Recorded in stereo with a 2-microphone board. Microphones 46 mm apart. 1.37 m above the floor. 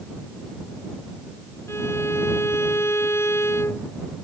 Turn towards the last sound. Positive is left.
turn(degrees=80)